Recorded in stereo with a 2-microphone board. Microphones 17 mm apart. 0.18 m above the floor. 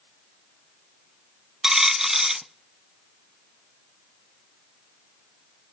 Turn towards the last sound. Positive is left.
turn(degrees=-35)  # may be behind; listen again after turning